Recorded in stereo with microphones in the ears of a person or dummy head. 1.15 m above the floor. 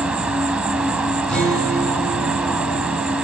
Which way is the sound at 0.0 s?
5° right (ahead or behind).